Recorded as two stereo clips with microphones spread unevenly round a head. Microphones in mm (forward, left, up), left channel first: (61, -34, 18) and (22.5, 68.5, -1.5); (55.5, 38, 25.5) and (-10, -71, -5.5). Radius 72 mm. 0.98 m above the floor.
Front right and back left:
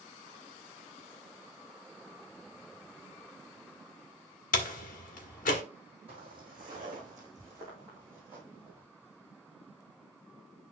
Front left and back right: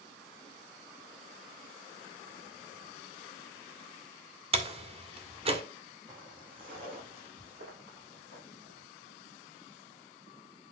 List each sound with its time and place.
4.5 s a door slam: 70° right, 1.6 m
6.1 s footsteps: 170° left, 2.5 m; by 8.8 s 170° right, 5 m